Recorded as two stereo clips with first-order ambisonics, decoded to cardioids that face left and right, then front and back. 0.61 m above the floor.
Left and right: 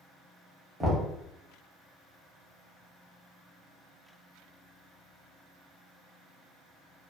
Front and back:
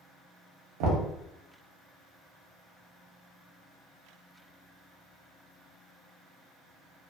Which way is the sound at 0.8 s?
170° right.